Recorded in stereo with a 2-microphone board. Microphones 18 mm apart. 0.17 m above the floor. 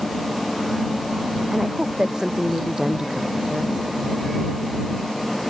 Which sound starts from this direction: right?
A woman speaking, at 1.5 s.